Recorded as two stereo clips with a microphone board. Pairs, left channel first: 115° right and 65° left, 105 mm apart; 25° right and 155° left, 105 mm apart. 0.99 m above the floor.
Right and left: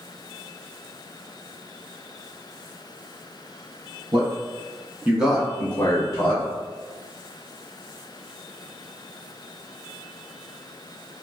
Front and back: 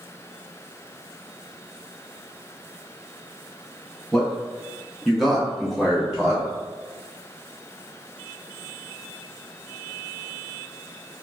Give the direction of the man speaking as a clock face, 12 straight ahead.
10 o'clock.